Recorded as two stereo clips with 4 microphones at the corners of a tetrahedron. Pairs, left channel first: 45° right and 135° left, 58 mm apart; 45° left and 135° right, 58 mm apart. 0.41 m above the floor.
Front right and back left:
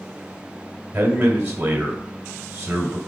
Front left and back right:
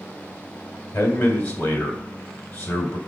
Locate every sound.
0.9 s a man speaking: 75° left, 1.7 m